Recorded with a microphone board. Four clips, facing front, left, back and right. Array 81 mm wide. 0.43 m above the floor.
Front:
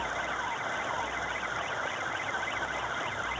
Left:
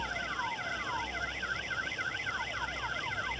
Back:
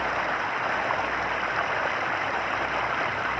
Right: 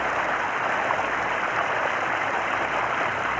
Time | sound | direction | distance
0.0 | running water | 115° right | ?